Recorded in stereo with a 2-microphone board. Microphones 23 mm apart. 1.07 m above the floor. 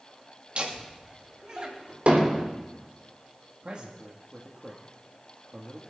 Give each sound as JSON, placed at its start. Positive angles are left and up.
{"t": 0.6, "sound": "laughter", "side_deg": -50, "distance_m": 2.5}
{"t": 2.1, "sound": "hammering", "side_deg": -65, "distance_m": 3.5}
{"t": 3.6, "sound": "a man speaking", "side_deg": -50, "distance_m": 1.7}